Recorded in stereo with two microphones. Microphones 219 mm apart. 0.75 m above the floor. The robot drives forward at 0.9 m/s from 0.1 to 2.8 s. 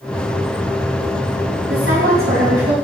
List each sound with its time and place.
1.7 s a woman speaking: 80° right, 5.5 m; by 2.7 s 75° right (ahead or behind), 5.5 m